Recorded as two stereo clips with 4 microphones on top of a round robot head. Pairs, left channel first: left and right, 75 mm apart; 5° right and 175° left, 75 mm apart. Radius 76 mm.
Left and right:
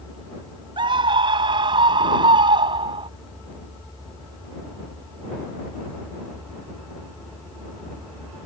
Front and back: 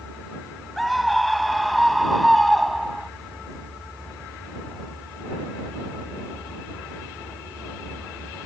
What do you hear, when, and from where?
0.8 s a scream: 95° right